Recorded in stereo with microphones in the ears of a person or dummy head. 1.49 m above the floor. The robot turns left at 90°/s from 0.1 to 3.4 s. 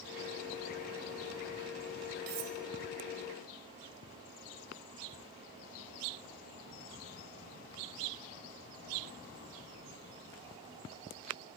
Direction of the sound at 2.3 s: 55° right (ahead or behind).